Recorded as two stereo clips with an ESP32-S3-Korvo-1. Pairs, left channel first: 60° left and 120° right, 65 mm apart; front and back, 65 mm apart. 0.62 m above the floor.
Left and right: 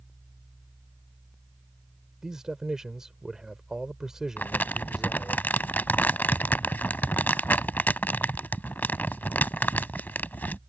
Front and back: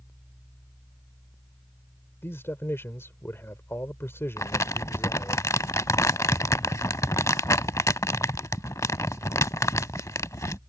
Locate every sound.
2.2 s a man speaking: 40° right
4.4 s crumpling: 5° left